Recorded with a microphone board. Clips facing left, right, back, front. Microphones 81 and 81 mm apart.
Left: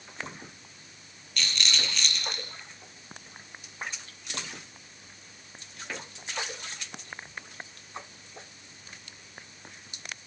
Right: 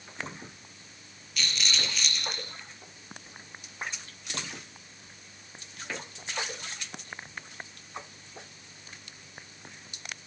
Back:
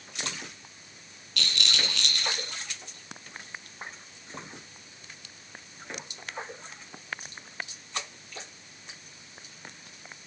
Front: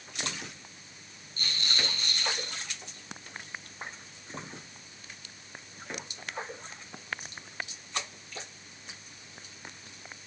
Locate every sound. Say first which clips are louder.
1.4 s a rattle: left 1 dB, back 3 dB; straight behind, 5.5 m